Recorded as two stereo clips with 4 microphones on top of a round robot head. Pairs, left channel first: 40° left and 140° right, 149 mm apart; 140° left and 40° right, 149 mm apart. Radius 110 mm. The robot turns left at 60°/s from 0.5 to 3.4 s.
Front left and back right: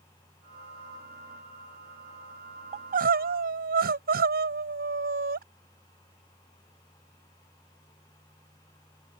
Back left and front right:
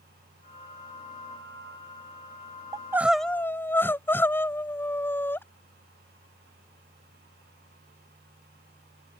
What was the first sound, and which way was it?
Crying, 105° right.